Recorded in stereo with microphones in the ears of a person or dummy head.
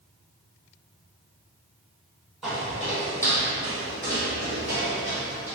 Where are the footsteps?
5° right (ahead or behind), 1.6 m; by 5.5 s 10° right (ahead or behind), 2 m.